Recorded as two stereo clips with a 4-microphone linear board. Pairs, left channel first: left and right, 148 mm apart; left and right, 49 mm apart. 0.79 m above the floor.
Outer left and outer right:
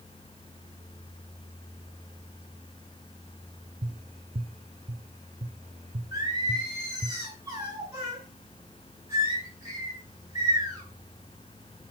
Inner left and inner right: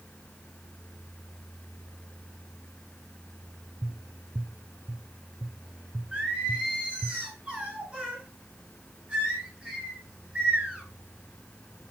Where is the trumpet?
No trumpet in this recording.